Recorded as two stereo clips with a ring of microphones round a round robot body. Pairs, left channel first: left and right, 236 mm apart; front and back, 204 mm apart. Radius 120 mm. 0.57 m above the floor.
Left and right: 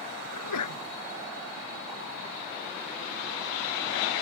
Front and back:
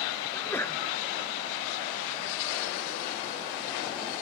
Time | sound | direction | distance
0.3 | a sneeze | 80° left | ?